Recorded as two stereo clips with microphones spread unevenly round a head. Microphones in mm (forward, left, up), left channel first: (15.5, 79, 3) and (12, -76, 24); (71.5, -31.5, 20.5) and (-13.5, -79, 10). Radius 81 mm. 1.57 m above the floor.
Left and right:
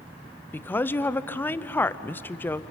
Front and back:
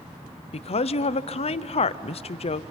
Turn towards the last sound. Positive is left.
turn(degrees=10)